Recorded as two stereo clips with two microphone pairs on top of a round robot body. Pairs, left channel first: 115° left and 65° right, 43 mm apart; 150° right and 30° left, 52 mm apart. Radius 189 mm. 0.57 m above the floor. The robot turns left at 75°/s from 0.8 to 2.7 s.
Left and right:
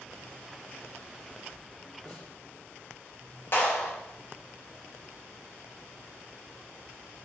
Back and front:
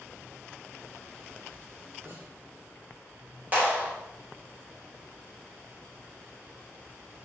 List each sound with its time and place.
2.0 s a snare drum: 70° left, 2.5 m; by 2.3 s 50° left, 2.5 m
3.5 s a clap: 85° left, 3 m